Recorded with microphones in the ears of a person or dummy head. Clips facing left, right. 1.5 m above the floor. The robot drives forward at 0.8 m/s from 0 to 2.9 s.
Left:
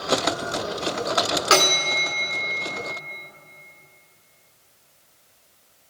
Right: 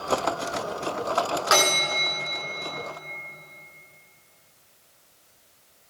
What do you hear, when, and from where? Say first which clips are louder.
1.5 s a bell: left 3 dB; 35° left (ahead or behind), 1.9 m; by 2.3 s 25° left (ahead or behind), 2.5 m